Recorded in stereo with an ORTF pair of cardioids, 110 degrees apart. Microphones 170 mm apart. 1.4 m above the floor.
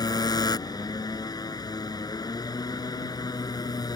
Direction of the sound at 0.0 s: 20° left.